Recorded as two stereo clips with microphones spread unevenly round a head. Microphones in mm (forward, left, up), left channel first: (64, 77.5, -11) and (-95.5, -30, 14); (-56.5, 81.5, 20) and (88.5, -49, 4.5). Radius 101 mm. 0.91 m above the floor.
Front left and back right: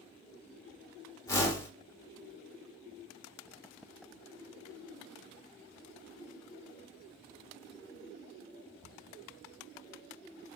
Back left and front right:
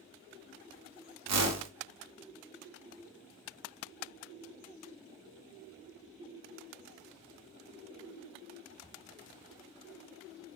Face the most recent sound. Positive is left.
turn(degrees=-45)